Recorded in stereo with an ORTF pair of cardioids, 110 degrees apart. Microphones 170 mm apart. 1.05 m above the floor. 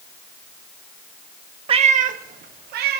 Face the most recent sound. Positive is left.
turn(degrees=-75)